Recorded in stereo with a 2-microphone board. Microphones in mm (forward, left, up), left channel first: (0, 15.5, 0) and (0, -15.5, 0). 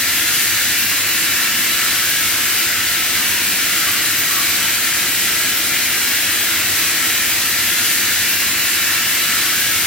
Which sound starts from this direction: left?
Running water, at 0.0 s.